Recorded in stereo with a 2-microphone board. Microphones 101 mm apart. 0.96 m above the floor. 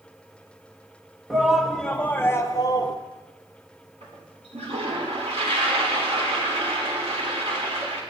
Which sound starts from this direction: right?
A toilet flushing, at 4.0 s.